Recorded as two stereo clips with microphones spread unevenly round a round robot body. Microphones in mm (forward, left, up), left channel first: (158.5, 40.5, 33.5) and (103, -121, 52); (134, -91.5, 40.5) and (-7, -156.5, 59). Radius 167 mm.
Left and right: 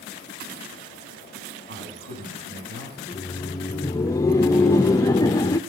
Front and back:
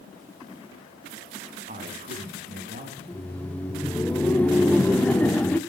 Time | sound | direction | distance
1.7 | a man speaking | 120° right | 8.5 m
3.0 | laughter | 75° left | 0.6 m